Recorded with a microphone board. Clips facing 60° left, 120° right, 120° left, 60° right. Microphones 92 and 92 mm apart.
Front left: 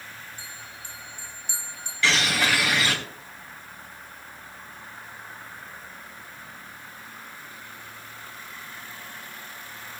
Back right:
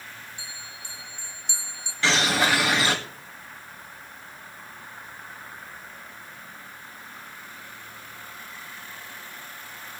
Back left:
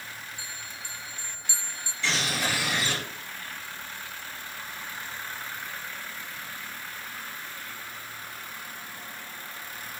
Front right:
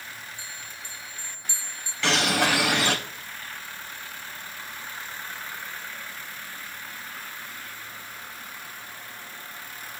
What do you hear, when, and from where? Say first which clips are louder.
0.4 s a bell: even, even; 105° left, 1.7 m
2.0 s a bird: back right 2 dB, front right 6 dB; 60° right, 3 m